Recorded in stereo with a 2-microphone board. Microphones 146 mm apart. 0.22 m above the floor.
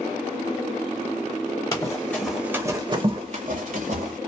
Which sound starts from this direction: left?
Running footsteps, at 1.7 s.